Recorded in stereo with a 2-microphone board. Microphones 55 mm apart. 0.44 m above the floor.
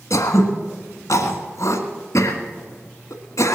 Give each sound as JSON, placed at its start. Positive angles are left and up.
{"t": 0.1, "sound": "throat clearing", "side_deg": 85, "distance_m": 1.6}